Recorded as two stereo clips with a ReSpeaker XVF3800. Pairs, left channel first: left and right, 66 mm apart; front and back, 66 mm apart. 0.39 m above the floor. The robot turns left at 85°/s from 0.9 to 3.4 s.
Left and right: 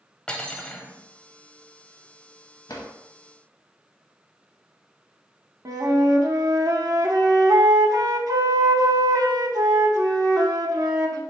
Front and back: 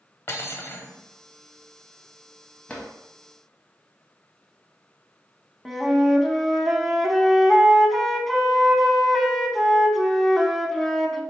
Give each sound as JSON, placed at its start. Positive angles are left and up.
{"t": 0.3, "sound": "cutlery clinking", "azimuth_deg": 20, "distance_m": 0.7}
{"t": 2.7, "sound": "a drawer", "azimuth_deg": 70, "distance_m": 0.7}
{"t": 5.7, "sound": "a flute", "azimuth_deg": -90, "distance_m": 0.5}